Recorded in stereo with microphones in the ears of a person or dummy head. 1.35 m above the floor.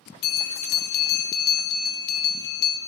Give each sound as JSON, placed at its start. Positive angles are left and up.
{"t": 0.2, "sound": "a bell", "side_deg": 50, "distance_m": 0.7}